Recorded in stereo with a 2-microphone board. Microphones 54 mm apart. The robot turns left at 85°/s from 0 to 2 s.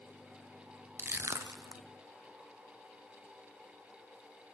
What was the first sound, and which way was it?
Crushing, 30° right (ahead or behind).